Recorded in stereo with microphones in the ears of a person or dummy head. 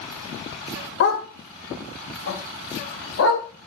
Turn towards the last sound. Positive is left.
turn(degrees=80)